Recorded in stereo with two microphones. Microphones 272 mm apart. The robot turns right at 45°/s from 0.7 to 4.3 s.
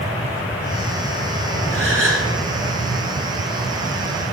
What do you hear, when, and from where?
1.7 s a gasp: 50° right (ahead or behind), 3.5 m; by 2.3 s 65° right (ahead or behind), 3.5 m